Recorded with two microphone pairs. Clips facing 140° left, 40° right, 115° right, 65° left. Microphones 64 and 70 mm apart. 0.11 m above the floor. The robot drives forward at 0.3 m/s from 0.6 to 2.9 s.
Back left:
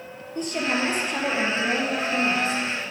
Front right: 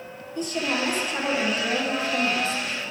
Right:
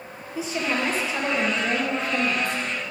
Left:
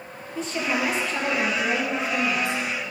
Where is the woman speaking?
165° left, 2.5 m.